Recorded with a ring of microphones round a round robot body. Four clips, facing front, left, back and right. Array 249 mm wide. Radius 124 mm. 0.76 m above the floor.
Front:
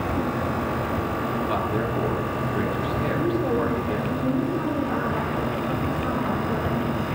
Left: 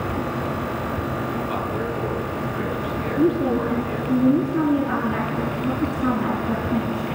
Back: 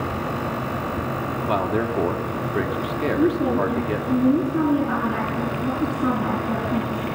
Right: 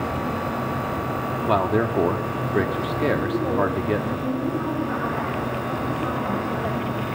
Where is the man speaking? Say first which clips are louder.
Right 5 dB, back 3 dB; 115° right, 2 m.